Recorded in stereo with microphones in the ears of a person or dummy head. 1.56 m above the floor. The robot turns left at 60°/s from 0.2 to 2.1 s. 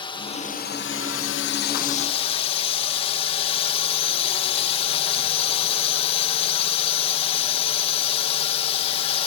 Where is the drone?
150° left; by 9.3 s 35° left.